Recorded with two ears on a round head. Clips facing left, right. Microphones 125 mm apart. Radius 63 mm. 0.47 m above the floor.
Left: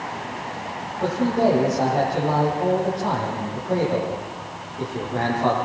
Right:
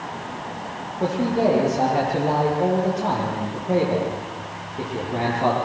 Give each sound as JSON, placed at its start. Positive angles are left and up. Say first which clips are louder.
{"t": 1.0, "sound": "a man speaking", "louder": "even", "side_deg": -25, "distance_m": 10.0}